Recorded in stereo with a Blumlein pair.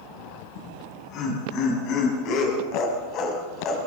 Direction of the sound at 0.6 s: 40° left.